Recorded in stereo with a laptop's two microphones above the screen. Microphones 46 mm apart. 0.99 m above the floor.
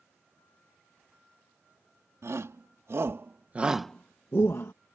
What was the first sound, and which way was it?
A shout, 70° right (ahead or behind).